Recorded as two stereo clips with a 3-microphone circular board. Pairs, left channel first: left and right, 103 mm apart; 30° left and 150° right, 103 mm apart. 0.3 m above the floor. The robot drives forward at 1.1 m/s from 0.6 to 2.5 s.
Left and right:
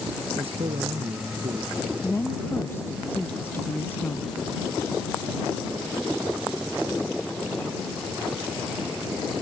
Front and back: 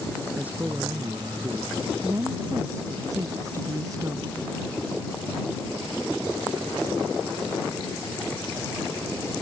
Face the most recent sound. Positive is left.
turn(degrees=155)